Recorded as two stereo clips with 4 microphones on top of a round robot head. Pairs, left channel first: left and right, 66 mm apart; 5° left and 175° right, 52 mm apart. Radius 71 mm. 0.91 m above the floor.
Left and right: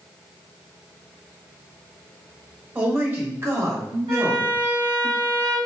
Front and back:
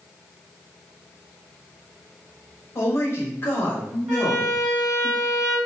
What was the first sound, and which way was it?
A man speaking, 30° right.